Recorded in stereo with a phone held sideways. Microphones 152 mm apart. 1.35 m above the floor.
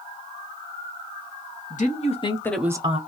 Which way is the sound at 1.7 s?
55° left (ahead or behind).